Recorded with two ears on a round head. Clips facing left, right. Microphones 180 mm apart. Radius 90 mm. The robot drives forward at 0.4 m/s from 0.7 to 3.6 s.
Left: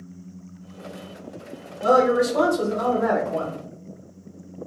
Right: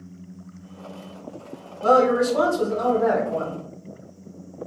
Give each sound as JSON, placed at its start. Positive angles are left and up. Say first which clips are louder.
{"t": 1.8, "sound": "a woman speaking", "louder": "even", "side_deg": 15, "distance_m": 1.8}